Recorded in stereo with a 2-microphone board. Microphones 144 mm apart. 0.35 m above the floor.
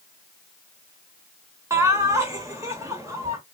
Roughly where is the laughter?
Right.